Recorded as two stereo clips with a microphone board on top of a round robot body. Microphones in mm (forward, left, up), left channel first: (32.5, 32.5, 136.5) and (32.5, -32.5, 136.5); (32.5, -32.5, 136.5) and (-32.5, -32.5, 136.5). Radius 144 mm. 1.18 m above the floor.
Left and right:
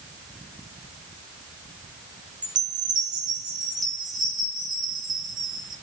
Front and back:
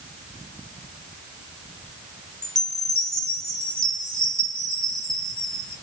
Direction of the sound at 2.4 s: 80° right.